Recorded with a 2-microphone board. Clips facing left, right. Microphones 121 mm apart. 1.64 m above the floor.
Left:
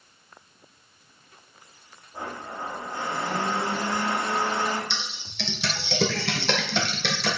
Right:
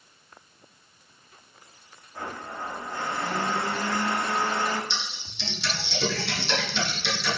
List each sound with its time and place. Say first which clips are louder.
2.1 s a blender: left 1 dB; 20° left (ahead or behind), 1.9 m
4.9 s typing on a keyboard: even; 70° left (ahead or behind), 1.7 m